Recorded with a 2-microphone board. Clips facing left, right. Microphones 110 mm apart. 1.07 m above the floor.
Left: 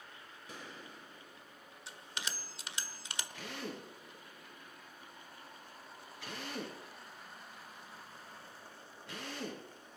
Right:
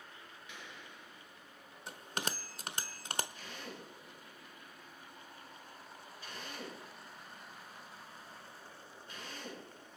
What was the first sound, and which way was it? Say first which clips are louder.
A gunshot: left 4 dB; 40° left (ahead or behind).